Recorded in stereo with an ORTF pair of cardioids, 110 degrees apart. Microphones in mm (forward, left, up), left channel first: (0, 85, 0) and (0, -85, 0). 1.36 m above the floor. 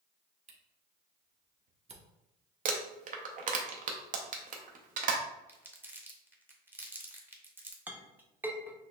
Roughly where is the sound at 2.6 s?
Ahead right.